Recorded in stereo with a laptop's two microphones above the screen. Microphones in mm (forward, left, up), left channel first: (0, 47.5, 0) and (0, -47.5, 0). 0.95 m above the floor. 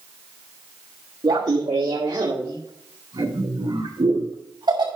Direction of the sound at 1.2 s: 55° right (ahead or behind).